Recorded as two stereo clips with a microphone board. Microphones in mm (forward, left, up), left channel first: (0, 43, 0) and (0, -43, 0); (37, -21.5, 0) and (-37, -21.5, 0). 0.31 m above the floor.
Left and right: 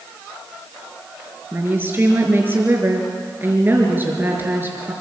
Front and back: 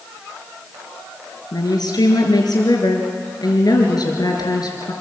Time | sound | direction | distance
1.5 | a woman speaking | 25° right | 4 m